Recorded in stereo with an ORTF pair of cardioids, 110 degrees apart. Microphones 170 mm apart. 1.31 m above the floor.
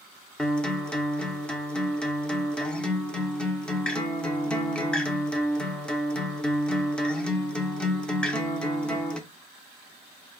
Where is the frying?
No frying in this recording.